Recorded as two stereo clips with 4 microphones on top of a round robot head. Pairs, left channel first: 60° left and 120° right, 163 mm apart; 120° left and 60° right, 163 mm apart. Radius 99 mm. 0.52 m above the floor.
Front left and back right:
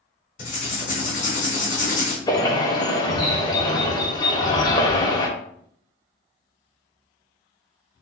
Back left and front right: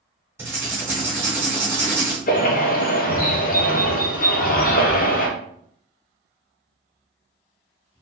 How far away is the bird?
About 0.9 m.